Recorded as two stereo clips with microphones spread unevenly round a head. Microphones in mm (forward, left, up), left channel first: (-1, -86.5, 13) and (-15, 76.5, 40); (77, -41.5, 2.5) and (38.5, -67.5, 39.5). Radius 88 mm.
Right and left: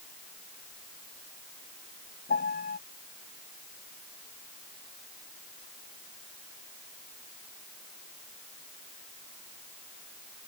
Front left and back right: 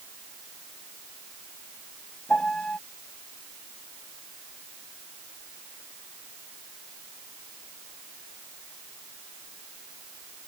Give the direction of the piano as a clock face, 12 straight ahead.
1 o'clock.